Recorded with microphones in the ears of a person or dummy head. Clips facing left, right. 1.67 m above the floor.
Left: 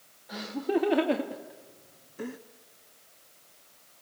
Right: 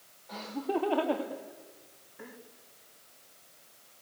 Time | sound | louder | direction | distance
0.3 | laughter | left 4 dB | 15° left (ahead or behind) | 1.4 m